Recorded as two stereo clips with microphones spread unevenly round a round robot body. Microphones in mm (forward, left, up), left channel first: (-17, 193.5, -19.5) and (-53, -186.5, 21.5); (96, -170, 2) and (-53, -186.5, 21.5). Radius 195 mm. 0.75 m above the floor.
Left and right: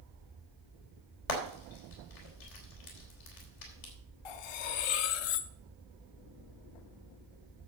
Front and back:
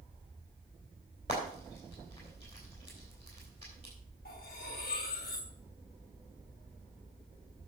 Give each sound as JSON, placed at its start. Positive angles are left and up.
{"t": 1.3, "sound": "frying", "azimuth_deg": 110, "distance_m": 3.5}
{"t": 4.2, "sound": "cutlery clinking", "azimuth_deg": 60, "distance_m": 0.7}